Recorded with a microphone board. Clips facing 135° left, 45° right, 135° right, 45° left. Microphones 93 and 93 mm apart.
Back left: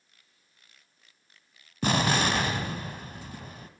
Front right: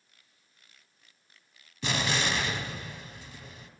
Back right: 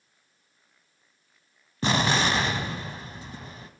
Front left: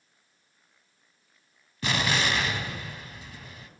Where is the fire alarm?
I don't hear a fire alarm.